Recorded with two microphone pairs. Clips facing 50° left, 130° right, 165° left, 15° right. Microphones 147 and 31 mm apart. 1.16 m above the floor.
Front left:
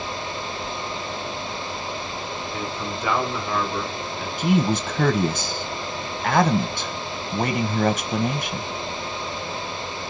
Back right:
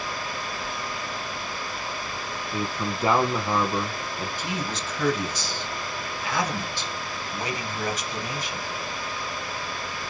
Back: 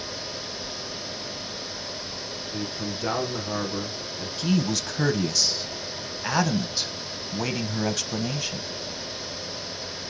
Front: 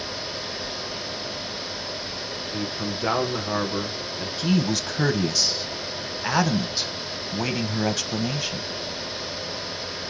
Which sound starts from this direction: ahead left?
A man speaking, at 4.4 s.